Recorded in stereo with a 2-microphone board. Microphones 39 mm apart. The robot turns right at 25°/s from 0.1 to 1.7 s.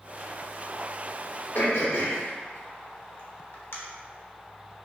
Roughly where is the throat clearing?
Left.